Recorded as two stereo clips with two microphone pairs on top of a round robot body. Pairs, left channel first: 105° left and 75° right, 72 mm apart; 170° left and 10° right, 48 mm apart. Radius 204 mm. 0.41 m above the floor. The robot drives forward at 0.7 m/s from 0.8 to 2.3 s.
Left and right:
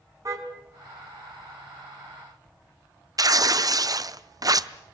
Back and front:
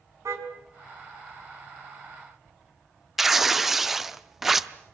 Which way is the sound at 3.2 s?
95° right.